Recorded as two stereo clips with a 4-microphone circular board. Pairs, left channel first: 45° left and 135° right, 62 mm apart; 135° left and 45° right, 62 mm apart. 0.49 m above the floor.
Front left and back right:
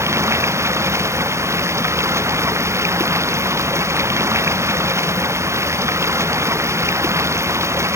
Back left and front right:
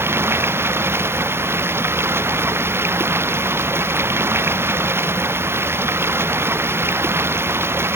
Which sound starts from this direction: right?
Running water, at 0.0 s.